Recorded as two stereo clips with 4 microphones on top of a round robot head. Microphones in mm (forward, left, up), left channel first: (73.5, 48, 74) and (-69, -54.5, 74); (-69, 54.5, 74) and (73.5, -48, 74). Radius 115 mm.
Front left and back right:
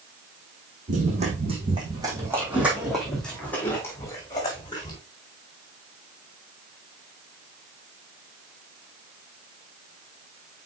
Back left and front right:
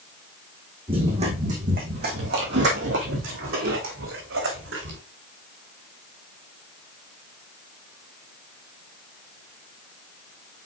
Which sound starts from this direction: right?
Running footsteps, at 0.9 s.